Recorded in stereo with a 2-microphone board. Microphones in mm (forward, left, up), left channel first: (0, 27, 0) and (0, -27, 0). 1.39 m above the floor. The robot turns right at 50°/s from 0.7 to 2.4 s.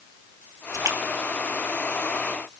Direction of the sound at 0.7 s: 80° right.